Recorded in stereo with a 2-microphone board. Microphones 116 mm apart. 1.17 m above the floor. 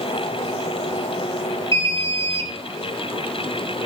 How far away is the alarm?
About 3 m.